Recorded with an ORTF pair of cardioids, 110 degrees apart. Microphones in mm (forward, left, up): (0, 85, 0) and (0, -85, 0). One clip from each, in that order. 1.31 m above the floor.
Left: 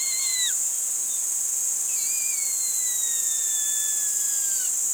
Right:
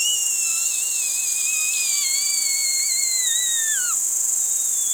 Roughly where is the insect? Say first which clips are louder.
Right 4 dB; ahead.